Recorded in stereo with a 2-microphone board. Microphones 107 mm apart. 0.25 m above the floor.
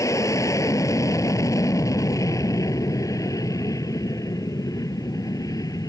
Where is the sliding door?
No sliding door in this recording.